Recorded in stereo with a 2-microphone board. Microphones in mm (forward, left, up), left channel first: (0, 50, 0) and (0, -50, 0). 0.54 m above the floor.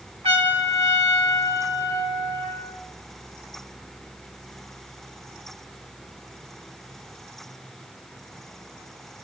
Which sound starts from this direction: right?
A trumpet, at 0.2 s.